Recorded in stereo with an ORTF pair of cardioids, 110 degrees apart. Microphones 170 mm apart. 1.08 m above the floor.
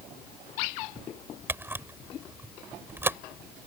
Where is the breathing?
I don't hear breathing.